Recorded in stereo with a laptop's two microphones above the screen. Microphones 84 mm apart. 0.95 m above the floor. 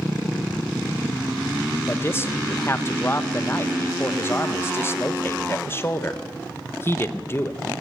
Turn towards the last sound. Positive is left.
turn(degrees=30)  # may be behind; listen again after turning